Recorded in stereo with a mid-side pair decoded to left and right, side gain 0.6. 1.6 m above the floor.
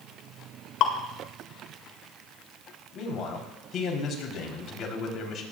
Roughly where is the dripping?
Ahead left.